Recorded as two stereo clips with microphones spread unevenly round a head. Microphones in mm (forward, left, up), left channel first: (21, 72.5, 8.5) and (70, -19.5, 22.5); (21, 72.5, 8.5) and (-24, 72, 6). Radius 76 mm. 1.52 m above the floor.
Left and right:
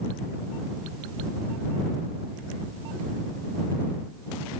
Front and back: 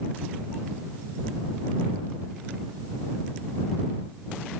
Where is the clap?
I don't hear a clap.